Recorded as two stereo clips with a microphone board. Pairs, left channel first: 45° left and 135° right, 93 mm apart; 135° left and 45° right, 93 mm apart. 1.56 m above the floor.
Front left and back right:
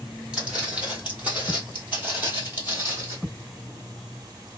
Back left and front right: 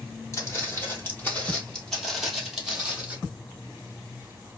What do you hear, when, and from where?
0.3 s footsteps: 155° left, 1.8 m; by 3.2 s 105° right, 1.8 m